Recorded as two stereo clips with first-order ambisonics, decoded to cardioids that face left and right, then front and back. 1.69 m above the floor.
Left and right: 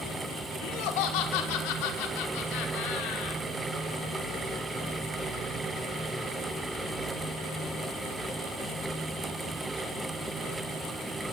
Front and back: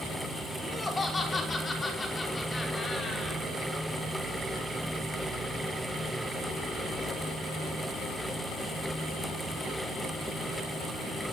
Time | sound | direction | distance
0.6 | laughter | 75° left | 4.5 m